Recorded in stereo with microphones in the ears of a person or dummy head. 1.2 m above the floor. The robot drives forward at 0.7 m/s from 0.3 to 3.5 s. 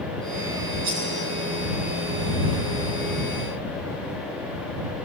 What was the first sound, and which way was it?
Cutlery clinking, 50° right (ahead or behind).